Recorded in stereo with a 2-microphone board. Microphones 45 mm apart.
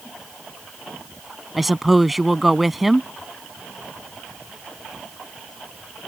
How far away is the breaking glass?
No breaking glass in this recording.